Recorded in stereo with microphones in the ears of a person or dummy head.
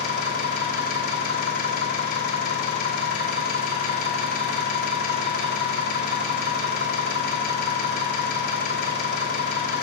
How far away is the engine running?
About 1.1 m.